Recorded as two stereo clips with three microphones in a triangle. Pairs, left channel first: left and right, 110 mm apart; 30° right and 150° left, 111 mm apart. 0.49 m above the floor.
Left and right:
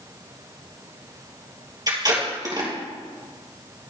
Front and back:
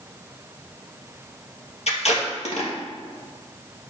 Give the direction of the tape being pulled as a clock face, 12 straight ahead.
1 o'clock.